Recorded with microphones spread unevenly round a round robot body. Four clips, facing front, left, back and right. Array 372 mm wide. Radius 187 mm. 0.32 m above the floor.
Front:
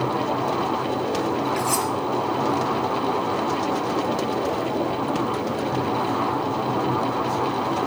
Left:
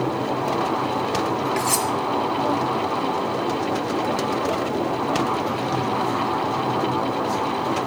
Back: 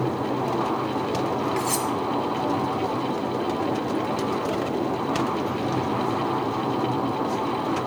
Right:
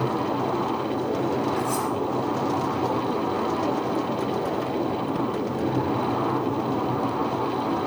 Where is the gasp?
I don't hear a gasp.